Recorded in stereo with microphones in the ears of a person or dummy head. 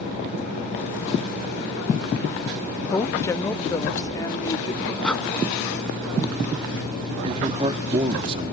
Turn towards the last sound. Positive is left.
turn(degrees=-30)  # may be behind; listen again after turning